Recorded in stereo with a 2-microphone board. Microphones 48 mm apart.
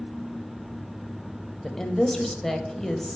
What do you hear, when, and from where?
1.6 s a woman speaking: 10° left (ahead or behind), 0.9 m